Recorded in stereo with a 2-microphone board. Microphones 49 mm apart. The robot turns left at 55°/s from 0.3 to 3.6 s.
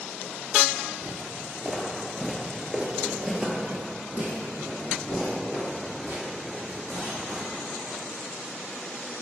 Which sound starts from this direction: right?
Footsteps, at 1.0 s.